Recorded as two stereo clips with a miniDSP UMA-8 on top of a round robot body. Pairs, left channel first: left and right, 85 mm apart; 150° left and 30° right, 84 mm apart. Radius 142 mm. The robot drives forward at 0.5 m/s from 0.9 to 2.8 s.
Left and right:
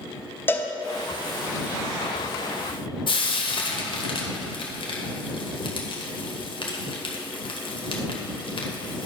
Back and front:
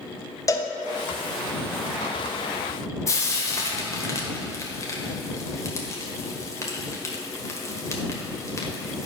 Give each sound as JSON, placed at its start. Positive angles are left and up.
{"t": 0.5, "sound": "a cowbell", "azimuth_deg": 140, "distance_m": 1.1}
{"t": 3.1, "sound": "frying", "azimuth_deg": 95, "distance_m": 1.5}